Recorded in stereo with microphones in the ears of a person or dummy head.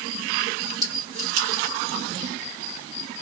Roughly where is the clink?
Centre.